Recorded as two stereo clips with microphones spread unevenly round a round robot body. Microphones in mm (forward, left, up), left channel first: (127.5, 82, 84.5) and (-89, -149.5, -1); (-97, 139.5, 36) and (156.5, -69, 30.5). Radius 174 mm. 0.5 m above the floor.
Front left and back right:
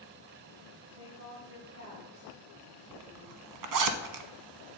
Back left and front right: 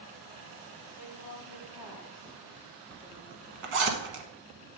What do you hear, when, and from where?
0.9 s a woman speaking: 90° right, 3 m; by 3.9 s 130° right, 3 m
2.9 s a zipper: 100° right, 0.9 m